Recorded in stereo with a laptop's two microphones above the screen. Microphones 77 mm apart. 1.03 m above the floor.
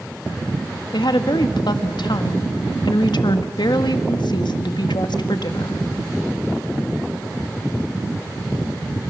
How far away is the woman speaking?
About 1.6 m.